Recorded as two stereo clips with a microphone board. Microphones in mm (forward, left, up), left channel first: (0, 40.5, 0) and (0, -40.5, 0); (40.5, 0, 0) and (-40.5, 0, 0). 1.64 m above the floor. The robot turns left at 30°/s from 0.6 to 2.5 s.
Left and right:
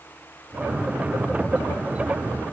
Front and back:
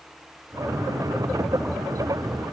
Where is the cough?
I don't hear a cough.